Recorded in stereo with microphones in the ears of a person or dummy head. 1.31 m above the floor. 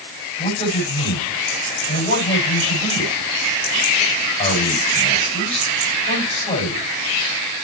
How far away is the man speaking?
About 7.5 m.